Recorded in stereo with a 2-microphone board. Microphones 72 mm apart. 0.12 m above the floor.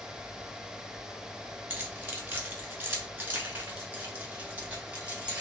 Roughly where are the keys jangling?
Right.